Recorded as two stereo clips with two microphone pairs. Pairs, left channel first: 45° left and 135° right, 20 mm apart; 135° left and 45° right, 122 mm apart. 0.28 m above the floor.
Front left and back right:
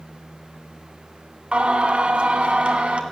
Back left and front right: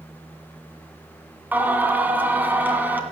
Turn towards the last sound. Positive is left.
turn(degrees=-120)